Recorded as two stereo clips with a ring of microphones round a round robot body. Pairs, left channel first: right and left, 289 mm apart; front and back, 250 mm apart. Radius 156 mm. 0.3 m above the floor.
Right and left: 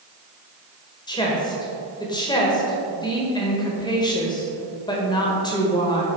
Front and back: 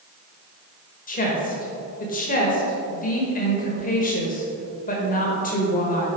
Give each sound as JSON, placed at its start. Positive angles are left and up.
{"t": 1.1, "sound": "a woman speaking", "azimuth_deg": -25, "distance_m": 1.5}